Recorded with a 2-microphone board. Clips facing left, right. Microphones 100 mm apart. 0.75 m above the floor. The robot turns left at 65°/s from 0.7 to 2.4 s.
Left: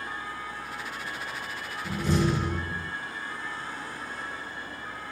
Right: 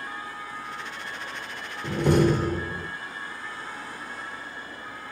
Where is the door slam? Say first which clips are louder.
Right 6 dB; 100° right, 1.2 m; by 2.9 s 140° right, 1.2 m.